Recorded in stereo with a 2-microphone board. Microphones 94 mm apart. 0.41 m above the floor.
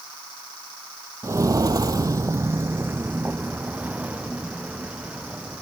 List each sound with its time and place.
1.2 s footsteps: 30° right (ahead or behind); by 5.6 s 10° right (ahead or behind)